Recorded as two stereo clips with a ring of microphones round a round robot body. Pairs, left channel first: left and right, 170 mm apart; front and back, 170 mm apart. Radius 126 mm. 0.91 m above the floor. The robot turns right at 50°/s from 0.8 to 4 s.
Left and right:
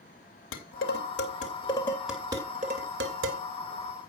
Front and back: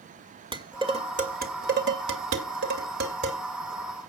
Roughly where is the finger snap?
No finger snap in this recording.